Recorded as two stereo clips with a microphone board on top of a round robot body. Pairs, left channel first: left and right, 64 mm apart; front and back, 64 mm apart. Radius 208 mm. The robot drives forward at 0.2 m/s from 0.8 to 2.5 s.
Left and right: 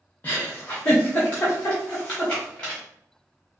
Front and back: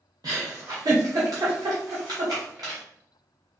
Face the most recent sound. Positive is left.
turn(degrees=160)